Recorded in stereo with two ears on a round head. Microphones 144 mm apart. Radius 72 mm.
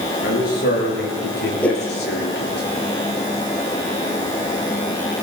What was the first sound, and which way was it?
A man speaking, 55° left (ahead or behind).